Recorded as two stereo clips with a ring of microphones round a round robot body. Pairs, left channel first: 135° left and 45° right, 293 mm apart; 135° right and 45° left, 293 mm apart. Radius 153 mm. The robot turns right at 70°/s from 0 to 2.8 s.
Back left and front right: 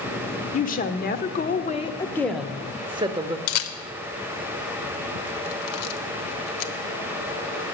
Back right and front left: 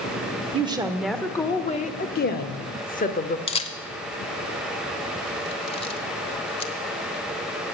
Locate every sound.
0.5 s a woman speaking: 95° left, 1.0 m; by 3.4 s 105° right, 1.0 m
3.5 s a camera shutter: 155° left, 0.8 m